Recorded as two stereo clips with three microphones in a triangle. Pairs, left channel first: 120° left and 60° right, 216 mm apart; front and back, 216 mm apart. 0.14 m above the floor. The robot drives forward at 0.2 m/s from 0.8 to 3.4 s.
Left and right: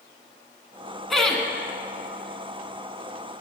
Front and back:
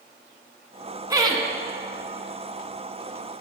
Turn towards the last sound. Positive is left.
turn(degrees=-170)